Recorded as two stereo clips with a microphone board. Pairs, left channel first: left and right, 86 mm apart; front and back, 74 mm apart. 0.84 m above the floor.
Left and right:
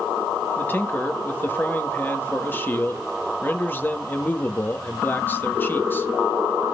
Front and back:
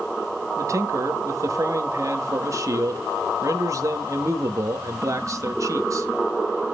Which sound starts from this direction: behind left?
A man speaking, at 0.6 s.